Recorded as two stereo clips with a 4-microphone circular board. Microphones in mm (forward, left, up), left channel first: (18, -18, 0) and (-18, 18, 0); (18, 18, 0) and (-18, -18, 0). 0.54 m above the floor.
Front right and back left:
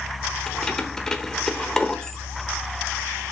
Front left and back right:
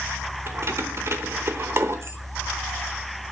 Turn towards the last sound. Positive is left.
turn(degrees=-120)